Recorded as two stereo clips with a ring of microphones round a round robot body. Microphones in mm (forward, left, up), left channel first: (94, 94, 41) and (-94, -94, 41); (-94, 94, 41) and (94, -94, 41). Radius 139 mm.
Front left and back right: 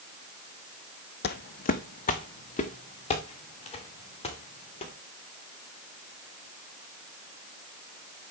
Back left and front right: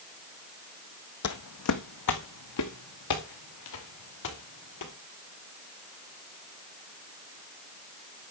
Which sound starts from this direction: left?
Footsteps, at 1.2 s.